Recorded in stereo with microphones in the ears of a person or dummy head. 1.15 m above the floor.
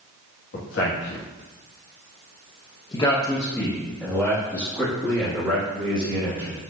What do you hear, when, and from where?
0.5 s a man speaking: 65° left (ahead or behind), 1.3 m; by 6.6 s 25° right (ahead or behind), 2.5 m